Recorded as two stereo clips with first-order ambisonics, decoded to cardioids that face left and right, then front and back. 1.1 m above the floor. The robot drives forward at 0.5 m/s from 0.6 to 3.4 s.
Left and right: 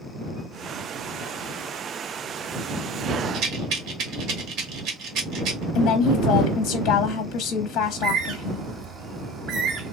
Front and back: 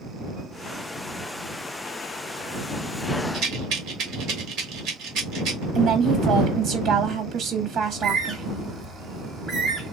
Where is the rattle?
140° right, 1.1 m.